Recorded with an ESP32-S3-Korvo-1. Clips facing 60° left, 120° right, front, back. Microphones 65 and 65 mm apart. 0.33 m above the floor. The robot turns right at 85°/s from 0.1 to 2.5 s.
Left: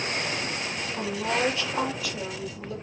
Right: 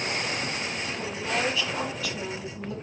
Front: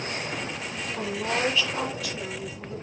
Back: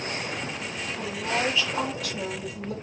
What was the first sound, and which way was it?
A woman speaking, 40° left.